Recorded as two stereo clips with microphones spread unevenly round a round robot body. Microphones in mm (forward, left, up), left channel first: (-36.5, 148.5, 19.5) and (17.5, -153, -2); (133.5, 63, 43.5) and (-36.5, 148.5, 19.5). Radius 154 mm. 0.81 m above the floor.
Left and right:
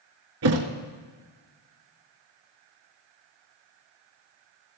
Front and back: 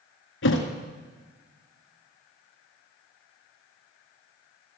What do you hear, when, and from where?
0.4 s a thud: 35° right, 1.7 m